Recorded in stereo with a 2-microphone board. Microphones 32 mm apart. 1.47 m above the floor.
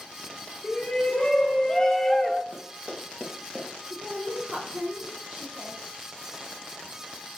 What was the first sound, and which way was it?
A shout, 30° left (ahead or behind).